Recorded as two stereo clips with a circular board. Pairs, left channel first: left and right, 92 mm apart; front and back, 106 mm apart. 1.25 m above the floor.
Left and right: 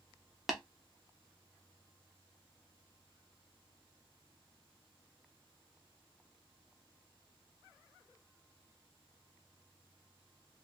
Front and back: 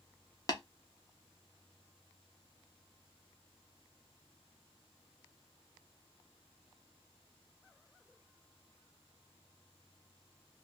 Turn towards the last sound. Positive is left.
turn(degrees=-5)